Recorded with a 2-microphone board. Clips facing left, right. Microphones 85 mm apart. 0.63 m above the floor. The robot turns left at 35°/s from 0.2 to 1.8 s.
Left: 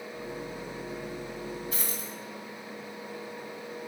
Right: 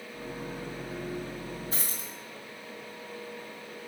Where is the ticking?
No ticking in this recording.